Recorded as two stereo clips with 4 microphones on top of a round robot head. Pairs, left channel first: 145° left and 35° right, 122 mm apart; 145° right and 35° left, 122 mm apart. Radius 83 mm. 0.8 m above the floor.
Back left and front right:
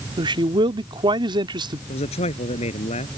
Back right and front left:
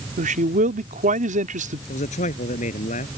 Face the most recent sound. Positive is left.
turn(degrees=-175)